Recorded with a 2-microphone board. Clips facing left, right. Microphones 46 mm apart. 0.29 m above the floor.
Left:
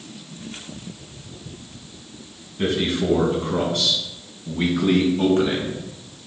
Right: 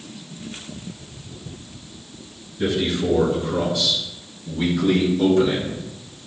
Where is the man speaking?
60° left (ahead or behind), 3 m; by 5.8 s 45° left (ahead or behind), 3.5 m.